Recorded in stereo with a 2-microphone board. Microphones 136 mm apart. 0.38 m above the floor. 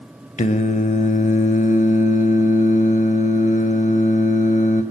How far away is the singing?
About 0.5 m.